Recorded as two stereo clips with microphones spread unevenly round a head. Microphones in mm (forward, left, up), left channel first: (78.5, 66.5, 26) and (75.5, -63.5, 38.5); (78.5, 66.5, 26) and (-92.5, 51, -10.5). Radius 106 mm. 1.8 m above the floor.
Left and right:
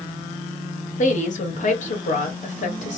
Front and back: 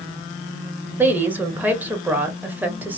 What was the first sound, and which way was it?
A woman speaking, 95° left.